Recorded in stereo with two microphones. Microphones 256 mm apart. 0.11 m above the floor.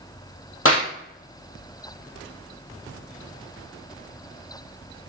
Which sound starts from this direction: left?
A clap, at 0.7 s.